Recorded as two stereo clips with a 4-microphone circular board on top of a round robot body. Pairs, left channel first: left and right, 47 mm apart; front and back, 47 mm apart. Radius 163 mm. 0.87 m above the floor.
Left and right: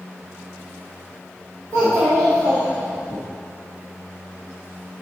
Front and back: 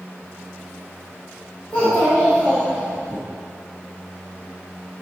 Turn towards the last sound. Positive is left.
turn(degrees=-130)